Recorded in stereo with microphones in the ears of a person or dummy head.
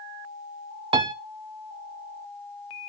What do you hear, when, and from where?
0.9 s a piano: 30° right (ahead or behind), 0.5 m